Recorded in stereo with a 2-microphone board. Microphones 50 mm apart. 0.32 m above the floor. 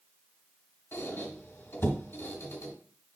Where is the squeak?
60° left (ahead or behind), 1.8 m.